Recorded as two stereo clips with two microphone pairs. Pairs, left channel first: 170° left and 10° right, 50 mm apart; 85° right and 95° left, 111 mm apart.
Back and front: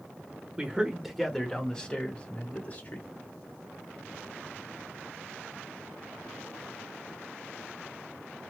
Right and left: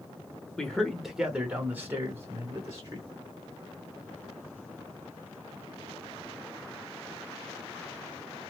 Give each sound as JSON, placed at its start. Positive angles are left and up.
{"t": 0.6, "sound": "a man speaking", "azimuth_deg": -10, "distance_m": 0.9}